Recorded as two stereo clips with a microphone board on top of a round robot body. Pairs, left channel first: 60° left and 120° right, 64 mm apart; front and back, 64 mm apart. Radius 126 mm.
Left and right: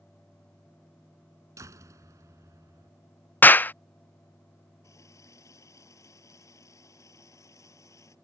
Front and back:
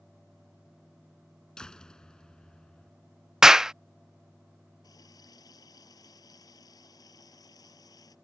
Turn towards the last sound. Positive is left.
turn(degrees=20)